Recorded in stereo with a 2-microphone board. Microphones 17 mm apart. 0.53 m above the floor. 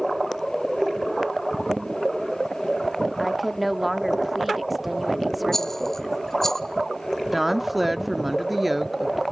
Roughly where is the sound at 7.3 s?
Centre.